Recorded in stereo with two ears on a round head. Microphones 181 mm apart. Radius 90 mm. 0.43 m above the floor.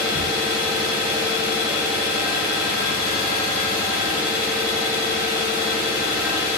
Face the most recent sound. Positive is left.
turn(degrees=50)  # may be behind; listen again after turning